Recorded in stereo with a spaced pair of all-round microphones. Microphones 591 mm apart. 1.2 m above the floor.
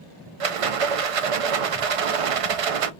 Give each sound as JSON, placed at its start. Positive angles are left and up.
{"t": 0.4, "sound": "a rattle", "side_deg": -65, "distance_m": 0.5}